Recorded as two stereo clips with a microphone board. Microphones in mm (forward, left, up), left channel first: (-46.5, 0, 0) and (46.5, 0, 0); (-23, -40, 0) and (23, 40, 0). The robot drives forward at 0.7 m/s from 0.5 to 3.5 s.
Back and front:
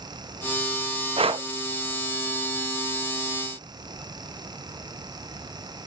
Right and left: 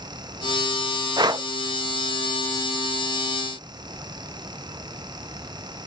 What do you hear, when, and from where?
1.2 s breathing: 15° left, 0.7 m; by 1.5 s 20° left, 0.5 m